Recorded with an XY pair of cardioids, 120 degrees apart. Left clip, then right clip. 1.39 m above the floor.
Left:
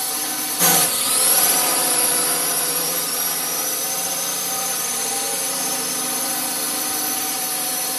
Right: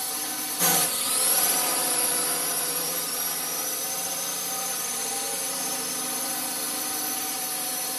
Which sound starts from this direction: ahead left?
A drone, at 0.0 s.